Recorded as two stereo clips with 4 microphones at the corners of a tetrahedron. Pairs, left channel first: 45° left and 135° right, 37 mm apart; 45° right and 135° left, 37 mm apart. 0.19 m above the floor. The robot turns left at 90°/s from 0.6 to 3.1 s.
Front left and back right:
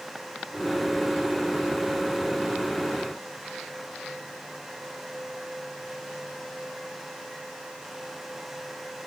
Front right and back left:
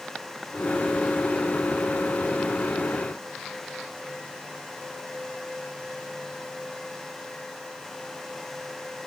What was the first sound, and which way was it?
Only background noise.